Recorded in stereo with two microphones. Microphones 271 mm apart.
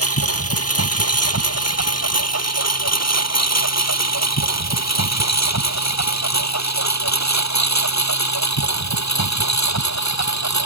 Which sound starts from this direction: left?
A lawn mower, at 0.0 s.